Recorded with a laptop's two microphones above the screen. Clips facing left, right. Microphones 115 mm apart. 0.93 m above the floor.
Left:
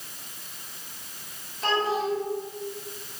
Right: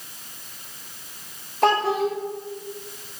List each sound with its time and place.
1.6 s a child speaking: 70° right (ahead or behind), 2 m